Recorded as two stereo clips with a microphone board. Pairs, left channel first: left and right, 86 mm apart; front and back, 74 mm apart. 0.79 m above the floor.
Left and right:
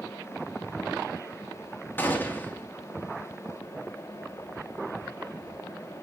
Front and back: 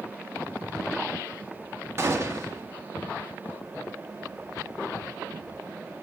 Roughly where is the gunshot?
Behind left.